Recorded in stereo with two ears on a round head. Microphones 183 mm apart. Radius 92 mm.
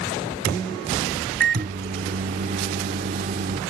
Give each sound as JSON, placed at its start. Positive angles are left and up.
{"t": 1.4, "sound": "a microwave", "side_deg": -40}